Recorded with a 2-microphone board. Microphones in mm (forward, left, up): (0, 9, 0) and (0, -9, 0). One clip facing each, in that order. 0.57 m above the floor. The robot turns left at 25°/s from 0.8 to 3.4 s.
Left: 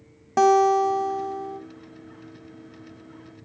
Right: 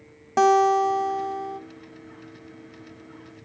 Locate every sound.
0.4 s a guitar: 5° right (ahead or behind), 1.0 m; by 1.6 s 25° right (ahead or behind), 1.0 m